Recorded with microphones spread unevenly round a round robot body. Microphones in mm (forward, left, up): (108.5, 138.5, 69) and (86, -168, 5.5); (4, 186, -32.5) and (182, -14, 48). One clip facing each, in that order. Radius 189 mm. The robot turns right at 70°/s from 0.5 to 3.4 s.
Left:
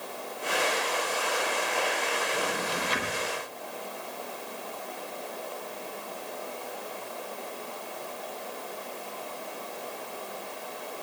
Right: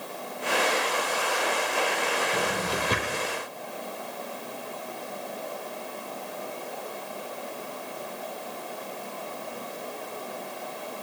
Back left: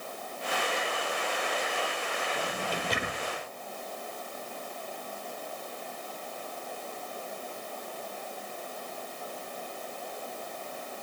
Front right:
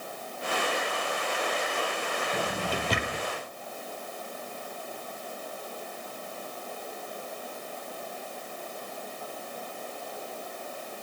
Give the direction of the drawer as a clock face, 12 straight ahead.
3 o'clock.